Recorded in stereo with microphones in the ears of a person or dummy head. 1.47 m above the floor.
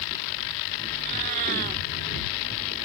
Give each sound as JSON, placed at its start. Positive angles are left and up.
{"t": 0.9, "sound": "a cat meowing", "side_deg": -50}